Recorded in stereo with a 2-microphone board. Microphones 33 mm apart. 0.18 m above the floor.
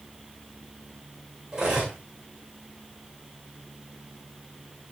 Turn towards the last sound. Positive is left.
turn(degrees=-25)  # may be behind; listen again after turning